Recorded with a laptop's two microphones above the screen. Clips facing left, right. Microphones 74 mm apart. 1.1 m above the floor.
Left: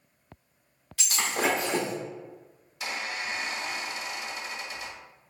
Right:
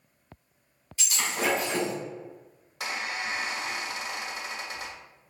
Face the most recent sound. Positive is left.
turn(degrees=-70)  # may be behind; listen again after turning